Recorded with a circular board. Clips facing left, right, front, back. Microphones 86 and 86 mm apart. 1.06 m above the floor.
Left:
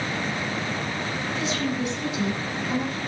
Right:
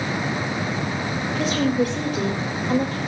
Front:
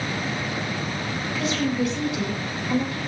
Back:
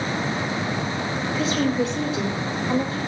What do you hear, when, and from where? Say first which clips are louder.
1.4 s a woman speaking: right 8 dB, back 2 dB; 130° right, 4.5 m